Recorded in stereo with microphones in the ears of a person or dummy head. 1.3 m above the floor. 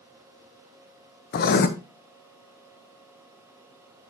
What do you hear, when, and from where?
1.3 s writing: 50° left (ahead or behind), 0.9 m